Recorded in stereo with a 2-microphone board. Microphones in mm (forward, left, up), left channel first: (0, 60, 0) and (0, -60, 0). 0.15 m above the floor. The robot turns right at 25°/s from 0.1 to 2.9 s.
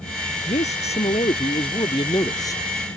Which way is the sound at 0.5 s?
100° left.